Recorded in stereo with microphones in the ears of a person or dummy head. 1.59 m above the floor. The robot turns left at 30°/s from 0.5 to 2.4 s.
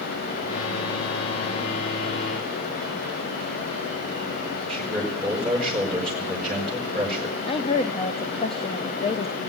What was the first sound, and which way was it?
A man speaking, centre (ahead or behind).